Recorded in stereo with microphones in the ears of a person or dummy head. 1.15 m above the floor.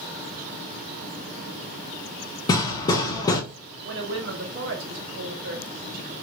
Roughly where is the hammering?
Left.